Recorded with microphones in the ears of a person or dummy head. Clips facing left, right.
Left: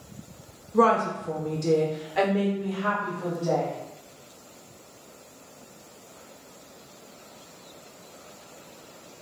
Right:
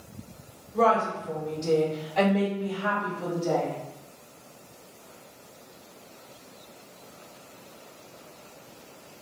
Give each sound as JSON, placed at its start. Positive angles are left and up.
{"t": 0.7, "sound": "a woman speaking", "side_deg": 65, "distance_m": 1.1}